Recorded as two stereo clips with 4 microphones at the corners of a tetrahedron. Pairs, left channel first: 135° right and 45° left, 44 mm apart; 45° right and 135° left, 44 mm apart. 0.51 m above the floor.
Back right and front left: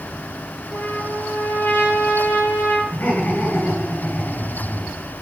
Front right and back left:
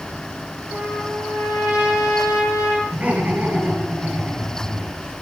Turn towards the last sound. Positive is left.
turn(degrees=-175)